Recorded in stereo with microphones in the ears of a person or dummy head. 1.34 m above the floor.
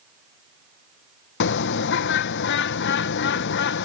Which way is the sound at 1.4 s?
50° left (ahead or behind).